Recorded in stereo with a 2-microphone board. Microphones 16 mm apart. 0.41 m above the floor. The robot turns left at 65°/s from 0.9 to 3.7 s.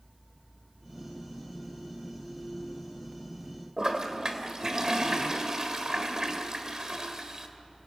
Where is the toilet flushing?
35° right (ahead or behind), 1.8 m.